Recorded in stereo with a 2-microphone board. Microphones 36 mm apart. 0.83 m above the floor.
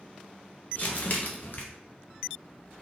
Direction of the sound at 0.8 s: 50° left (ahead or behind).